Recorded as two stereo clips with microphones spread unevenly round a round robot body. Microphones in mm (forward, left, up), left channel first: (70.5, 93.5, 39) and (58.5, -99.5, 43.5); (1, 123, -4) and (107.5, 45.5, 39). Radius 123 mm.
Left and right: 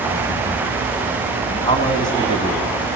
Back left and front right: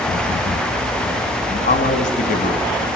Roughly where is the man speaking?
Behind.